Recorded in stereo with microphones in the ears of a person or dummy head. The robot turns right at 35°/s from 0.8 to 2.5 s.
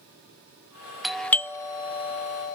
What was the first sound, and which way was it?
A doorbell, centre (ahead or behind).